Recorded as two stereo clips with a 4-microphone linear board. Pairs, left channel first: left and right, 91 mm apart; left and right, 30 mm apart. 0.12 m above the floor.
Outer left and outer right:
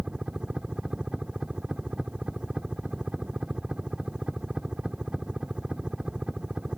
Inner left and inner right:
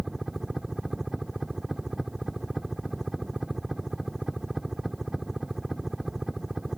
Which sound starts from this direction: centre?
A helicopter, at 0.0 s.